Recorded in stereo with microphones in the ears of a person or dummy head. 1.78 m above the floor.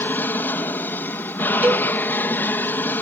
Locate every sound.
0.0 s an aircraft: 10° left (ahead or behind)
1.6 s a cowbell: 5° right (ahead or behind)